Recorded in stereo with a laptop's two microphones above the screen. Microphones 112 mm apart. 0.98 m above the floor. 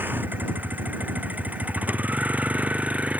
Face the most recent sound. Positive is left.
turn(degrees=-10)  # may be behind; listen again after turning